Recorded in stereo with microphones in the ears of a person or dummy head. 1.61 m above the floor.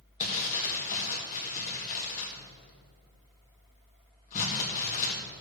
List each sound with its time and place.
0.2 s crumpling: 45° left (ahead or behind), 1.8 m